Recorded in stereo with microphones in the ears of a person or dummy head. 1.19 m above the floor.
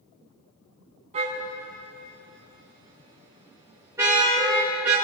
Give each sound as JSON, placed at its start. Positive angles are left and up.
{"t": 1.1, "sound": "a car horn", "side_deg": -30, "distance_m": 4.5}